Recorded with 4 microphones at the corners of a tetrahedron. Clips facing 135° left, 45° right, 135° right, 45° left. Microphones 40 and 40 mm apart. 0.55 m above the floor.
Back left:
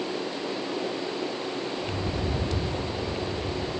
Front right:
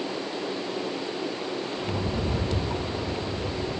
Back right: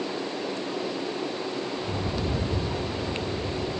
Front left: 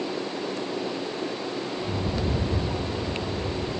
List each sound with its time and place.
1.8 s a rattle: 30° right, 4.5 m